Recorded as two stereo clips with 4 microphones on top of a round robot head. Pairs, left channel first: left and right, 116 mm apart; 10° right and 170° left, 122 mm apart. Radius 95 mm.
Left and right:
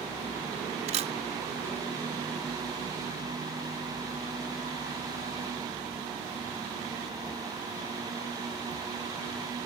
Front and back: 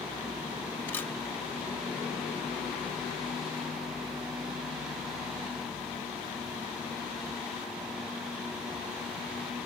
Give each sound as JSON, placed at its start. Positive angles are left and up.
{"t": 0.9, "sound": "a camera shutter", "azimuth_deg": -85}